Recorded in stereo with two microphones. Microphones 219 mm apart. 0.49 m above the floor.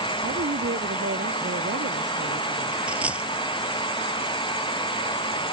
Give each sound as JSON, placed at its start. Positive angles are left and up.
{"t": 0.2, "sound": "a woman speaking", "side_deg": -55}
{"t": 2.9, "sound": "a dropped coin", "side_deg": -5}